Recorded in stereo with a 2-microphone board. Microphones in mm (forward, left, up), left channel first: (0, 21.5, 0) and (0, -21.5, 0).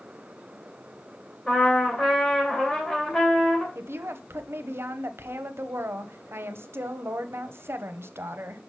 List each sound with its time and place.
1.5 s a trumpet: 20° left (ahead or behind), 2.0 m
3.8 s a woman speaking: 70° right (ahead or behind), 0.8 m